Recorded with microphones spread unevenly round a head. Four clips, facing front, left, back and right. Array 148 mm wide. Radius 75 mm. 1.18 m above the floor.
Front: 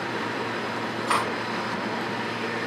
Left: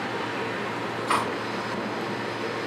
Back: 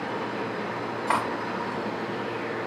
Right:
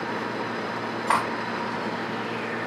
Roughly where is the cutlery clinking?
Behind right.